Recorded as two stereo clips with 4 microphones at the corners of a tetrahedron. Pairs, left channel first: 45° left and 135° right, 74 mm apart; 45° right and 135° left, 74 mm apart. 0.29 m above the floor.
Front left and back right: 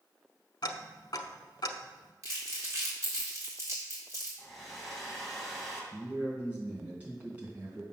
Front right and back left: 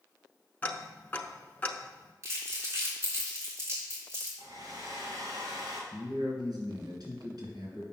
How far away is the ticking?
About 0.7 m.